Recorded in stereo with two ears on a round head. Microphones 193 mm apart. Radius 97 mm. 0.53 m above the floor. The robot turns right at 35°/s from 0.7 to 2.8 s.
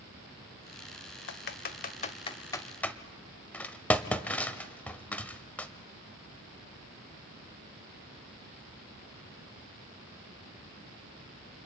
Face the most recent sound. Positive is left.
turn(degrees=10)  # may be behind; listen again after turning